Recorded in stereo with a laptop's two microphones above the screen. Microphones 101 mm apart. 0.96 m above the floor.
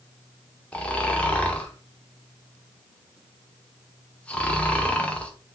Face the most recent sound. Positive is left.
turn(degrees=10)  # may be behind; listen again after turning